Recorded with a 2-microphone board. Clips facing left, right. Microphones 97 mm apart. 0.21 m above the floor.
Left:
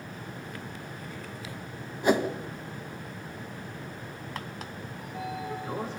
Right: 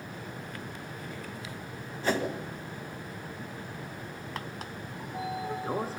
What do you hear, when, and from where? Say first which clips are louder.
2.0 s a whoosh: left 5 dB; 15° left (ahead or behind), 1.4 m
5.0 s a sliding door: right 1 dB; 35° right (ahead or behind), 4 m